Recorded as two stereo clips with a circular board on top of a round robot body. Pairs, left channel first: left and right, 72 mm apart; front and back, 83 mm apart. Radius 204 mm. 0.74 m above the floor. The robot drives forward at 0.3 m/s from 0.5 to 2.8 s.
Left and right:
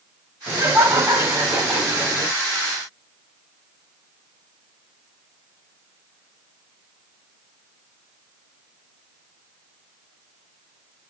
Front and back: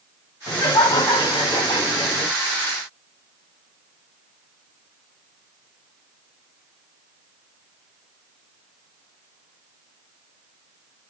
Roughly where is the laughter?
Ahead right.